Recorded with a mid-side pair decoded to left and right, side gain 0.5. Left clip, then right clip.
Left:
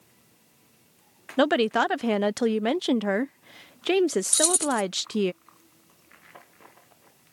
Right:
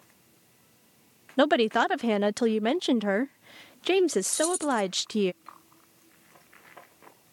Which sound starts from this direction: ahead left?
Keys jangling, at 4.3 s.